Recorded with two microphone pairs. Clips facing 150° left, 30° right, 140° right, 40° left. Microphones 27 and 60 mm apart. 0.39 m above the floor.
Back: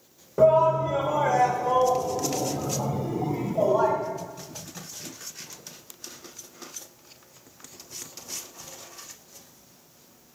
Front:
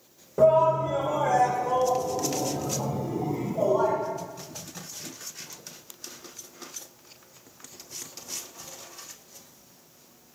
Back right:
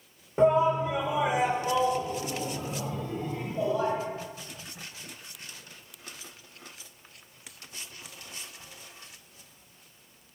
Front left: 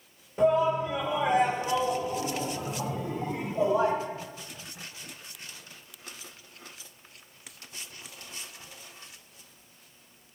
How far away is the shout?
About 1.1 m.